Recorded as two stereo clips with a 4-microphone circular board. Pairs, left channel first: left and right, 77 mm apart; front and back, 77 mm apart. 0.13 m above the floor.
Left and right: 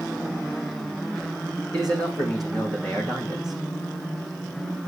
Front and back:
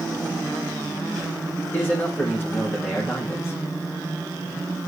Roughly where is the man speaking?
Ahead right.